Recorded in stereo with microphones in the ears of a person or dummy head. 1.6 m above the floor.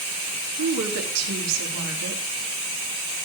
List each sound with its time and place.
0.6 s a woman speaking: 80° right, 4 m